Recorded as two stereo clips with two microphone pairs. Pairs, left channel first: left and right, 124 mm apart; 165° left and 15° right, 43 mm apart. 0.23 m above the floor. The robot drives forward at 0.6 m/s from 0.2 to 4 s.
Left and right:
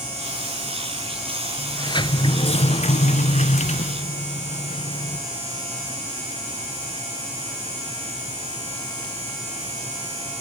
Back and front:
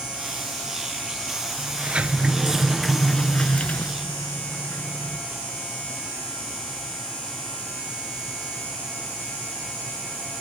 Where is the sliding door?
40° left, 1.2 m; by 5.2 s 125° left, 0.9 m.